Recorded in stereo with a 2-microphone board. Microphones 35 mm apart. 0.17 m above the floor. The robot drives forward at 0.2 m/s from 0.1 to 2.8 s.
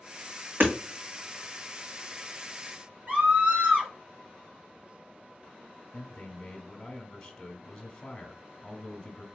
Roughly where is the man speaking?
Centre.